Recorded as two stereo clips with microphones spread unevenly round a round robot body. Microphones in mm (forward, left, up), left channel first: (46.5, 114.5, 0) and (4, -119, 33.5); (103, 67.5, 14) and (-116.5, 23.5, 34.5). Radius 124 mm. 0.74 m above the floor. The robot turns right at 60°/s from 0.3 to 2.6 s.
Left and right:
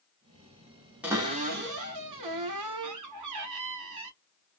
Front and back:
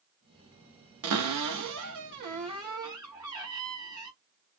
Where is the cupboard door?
175° left, 0.9 m; by 4.1 s 90° right, 0.9 m.